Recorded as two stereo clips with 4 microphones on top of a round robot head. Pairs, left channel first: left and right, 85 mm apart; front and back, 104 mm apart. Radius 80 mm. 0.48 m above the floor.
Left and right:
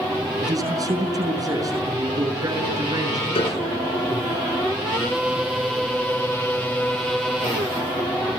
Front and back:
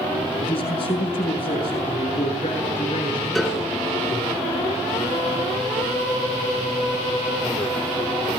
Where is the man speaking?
45° right, 5.5 m.